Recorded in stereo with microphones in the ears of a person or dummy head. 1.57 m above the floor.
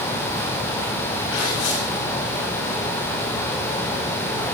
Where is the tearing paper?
85° left, 7.5 m.